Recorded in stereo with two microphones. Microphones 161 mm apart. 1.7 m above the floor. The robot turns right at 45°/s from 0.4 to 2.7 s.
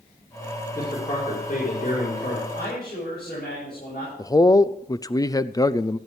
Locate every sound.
0.8 s a man speaking: 15° left, 4.5 m; by 2.5 s 95° left, 4.5 m
2.5 s a man speaking: 75° left (ahead or behind), 9.5 m; by 4.1 s 85° left, 9.5 m
4.2 s a man speaking: 20° left (ahead or behind), 0.5 m